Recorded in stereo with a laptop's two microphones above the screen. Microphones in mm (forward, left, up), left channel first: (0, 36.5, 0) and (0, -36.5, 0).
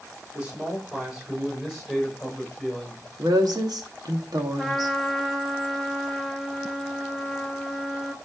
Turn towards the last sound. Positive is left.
turn(degrees=5)  # may be behind; listen again after turning